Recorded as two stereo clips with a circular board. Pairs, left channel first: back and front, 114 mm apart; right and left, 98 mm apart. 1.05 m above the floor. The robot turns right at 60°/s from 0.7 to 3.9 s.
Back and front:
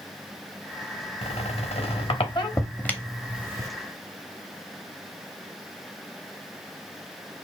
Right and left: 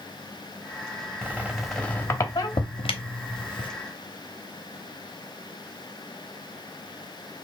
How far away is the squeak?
About 0.9 m.